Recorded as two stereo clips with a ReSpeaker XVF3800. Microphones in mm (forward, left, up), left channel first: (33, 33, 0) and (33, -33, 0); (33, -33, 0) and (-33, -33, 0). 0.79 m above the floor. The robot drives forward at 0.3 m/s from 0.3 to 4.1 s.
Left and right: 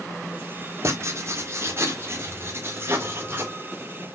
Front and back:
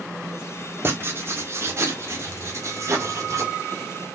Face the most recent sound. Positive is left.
turn(degrees=-145)